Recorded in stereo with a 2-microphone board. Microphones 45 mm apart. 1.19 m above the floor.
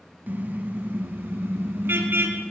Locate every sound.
0.3 s a car horn: 45° right (ahead or behind), 3.5 m; by 2.4 s 60° right (ahead or behind), 4.5 m